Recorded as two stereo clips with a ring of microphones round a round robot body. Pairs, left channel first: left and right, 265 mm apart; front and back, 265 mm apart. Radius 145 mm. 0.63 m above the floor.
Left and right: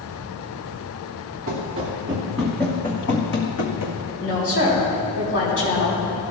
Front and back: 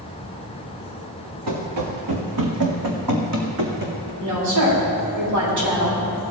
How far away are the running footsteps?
About 2.5 m.